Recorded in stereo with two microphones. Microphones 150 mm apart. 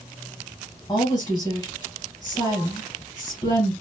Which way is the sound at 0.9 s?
30° left (ahead or behind).